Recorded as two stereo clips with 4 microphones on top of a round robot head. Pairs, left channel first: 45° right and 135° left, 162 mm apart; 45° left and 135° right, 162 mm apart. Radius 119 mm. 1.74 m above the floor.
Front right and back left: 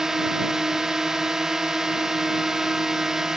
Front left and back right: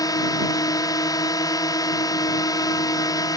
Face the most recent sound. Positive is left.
turn(degrees=55)